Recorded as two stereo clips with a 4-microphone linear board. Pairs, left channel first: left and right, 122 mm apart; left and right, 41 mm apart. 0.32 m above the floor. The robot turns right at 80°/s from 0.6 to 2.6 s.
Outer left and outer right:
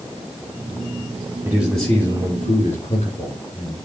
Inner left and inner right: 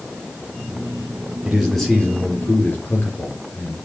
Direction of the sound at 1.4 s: 25° right.